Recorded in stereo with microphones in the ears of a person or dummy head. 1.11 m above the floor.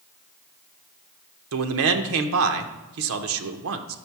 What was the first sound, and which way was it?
A man speaking, 75° right (ahead or behind).